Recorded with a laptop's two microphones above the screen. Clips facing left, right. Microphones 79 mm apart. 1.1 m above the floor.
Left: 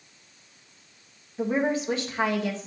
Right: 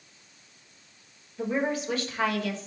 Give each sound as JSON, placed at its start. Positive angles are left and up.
{"t": 1.4, "sound": "a woman speaking", "side_deg": 25, "distance_m": 1.2}